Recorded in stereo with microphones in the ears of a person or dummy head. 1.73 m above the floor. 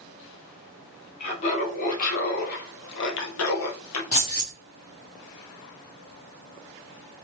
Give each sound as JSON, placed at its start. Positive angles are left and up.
{"t": 1.2, "sound": "laughter", "side_deg": 40, "distance_m": 1.9}
{"t": 4.1, "sound": "keys jangling", "side_deg": 35, "distance_m": 1.0}